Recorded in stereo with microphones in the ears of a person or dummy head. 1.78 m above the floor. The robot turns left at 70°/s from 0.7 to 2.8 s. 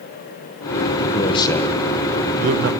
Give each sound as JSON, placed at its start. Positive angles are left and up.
{"t": 1.0, "sound": "a man speaking", "azimuth_deg": 45, "distance_m": 1.5}